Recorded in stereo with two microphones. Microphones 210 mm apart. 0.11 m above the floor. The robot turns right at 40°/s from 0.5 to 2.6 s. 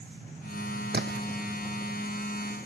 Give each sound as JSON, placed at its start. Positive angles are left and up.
{"t": 0.9, "sound": "a splash", "side_deg": -60}